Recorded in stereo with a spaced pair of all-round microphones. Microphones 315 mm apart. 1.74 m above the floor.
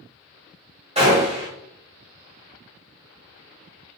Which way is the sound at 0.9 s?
20° right (ahead or behind).